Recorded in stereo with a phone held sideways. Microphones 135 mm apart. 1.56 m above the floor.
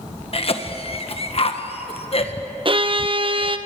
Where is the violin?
40° right (ahead or behind), 0.7 m.